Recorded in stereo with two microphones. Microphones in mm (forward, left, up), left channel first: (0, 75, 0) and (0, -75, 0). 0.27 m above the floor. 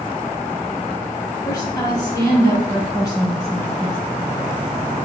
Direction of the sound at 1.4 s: 25° left (ahead or behind).